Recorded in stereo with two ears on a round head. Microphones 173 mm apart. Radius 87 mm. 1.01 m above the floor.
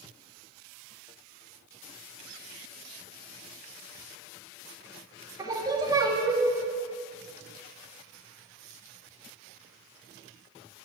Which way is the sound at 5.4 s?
20° right (ahead or behind).